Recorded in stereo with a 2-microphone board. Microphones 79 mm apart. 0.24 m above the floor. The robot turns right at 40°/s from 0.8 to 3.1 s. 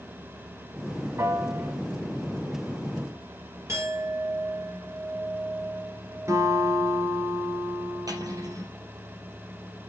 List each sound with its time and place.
1.2 s a piano: 35° right (ahead or behind), 1.1 m; by 1.7 s 45° right (ahead or behind), 1.1 m
3.7 s a clink: 40° right (ahead or behind), 3 m
6.3 s a guitar: 40° right (ahead or behind), 3 m
8.1 s cutlery clinking: 50° right (ahead or behind), 3.5 m